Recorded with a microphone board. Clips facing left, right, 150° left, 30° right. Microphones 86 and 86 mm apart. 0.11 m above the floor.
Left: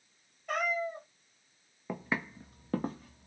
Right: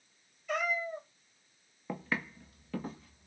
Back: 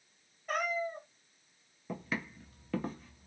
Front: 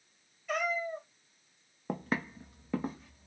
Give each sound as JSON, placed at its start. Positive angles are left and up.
{"t": 0.5, "sound": "a cat meowing", "azimuth_deg": 115, "distance_m": 1.1}
{"t": 1.9, "sound": "footsteps", "azimuth_deg": 5, "distance_m": 0.6}